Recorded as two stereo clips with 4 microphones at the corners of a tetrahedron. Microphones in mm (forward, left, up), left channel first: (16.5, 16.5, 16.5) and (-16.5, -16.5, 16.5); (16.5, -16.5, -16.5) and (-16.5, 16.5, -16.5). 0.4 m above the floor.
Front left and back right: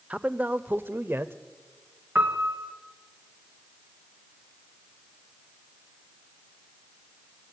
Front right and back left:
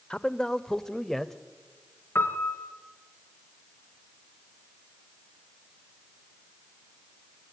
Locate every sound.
0.1 s a man speaking: 100° right, 0.9 m; by 1.3 s 130° right, 1.3 m
2.1 s a piano: 85° right, 2 m